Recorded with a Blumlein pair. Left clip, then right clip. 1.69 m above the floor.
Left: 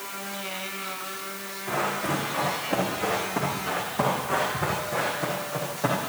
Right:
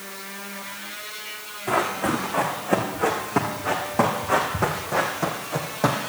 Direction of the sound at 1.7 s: 30° right.